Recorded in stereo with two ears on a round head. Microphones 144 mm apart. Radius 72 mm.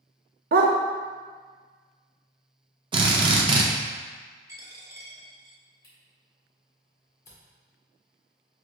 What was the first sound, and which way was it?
A dog barking, 60° right (ahead or behind).